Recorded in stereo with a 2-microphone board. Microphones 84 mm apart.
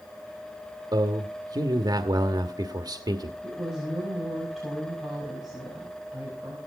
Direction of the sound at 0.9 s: 50° right (ahead or behind).